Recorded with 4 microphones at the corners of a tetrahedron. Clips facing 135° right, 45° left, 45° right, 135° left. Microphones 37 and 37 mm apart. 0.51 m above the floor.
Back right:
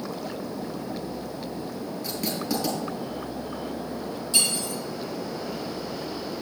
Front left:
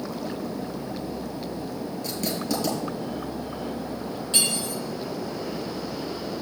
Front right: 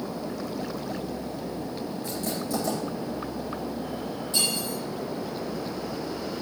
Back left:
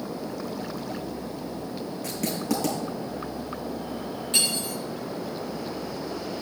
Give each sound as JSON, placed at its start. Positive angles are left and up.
{"t": 2.0, "sound": "writing", "azimuth_deg": 135, "distance_m": 5.0}
{"t": 4.3, "sound": "cutlery clinking", "azimuth_deg": 95, "distance_m": 5.0}